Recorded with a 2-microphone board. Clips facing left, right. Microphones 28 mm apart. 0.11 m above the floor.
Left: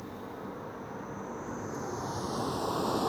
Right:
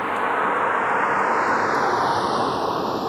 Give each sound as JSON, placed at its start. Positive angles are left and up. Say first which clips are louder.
{"t": 0.0, "sound": "a vehicle", "louder": "right 20 dB", "side_deg": -80}